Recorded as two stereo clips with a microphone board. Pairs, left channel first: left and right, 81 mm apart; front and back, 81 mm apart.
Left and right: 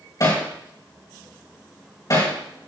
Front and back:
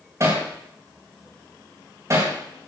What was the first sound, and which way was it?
Hammering, 130° left.